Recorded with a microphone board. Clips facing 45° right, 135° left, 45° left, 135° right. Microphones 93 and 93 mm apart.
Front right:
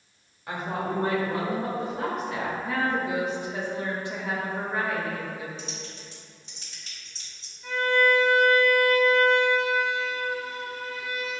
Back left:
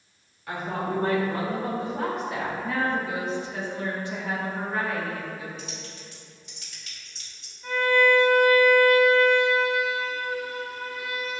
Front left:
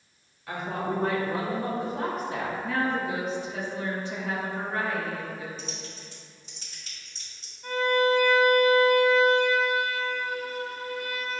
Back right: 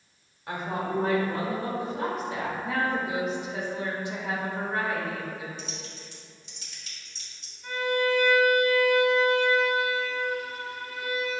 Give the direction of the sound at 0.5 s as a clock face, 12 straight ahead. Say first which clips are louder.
Back left 1 dB, even; 3 o'clock.